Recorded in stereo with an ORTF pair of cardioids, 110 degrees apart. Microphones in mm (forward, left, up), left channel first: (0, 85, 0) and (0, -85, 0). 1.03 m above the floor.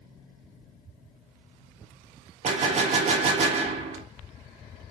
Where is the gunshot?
40° right, 1.0 m.